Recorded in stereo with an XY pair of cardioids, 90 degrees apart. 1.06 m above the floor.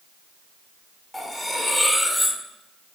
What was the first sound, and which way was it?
Cutlery clinking, 10° left.